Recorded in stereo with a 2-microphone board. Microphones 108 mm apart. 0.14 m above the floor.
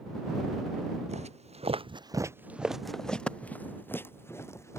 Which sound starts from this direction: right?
Footsteps, at 1.1 s.